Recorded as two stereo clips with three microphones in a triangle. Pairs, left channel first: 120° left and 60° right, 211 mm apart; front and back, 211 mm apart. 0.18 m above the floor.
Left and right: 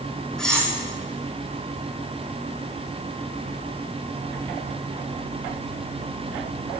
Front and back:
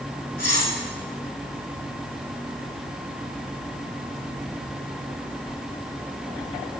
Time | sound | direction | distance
0.4 | cutlery clinking | 35° left | 6 m